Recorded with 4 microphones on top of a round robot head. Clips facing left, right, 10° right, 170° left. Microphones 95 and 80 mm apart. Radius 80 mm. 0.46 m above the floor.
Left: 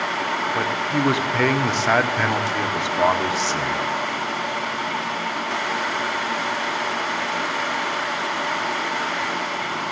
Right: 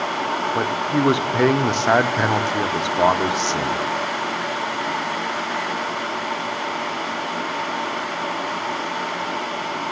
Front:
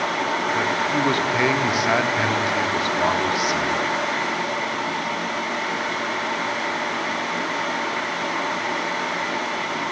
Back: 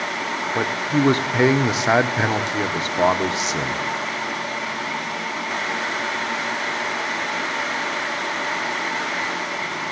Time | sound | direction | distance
0.6 | a man speaking | 145° right | 1.4 m